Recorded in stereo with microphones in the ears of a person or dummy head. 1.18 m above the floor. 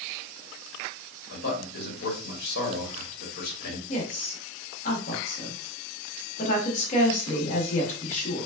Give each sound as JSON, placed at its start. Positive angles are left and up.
{"t": 1.3, "sound": "a man speaking", "side_deg": 60, "distance_m": 1.5}
{"t": 3.9, "sound": "a woman speaking", "side_deg": 45, "distance_m": 1.4}